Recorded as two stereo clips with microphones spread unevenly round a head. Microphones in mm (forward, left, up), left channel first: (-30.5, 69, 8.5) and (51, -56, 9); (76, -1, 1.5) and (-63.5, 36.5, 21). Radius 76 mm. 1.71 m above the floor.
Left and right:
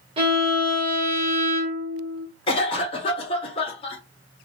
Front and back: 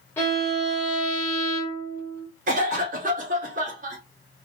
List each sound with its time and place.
0.2 s a violin: 95° right, 0.9 m
2.5 s a cough: 175° left, 1.0 m